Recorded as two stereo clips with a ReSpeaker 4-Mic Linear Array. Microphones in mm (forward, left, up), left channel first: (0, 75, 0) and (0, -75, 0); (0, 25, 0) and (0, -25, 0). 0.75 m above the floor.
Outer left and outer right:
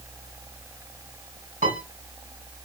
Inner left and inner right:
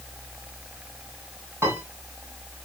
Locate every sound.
1.6 s a piano: 60° right (ahead or behind), 6.5 m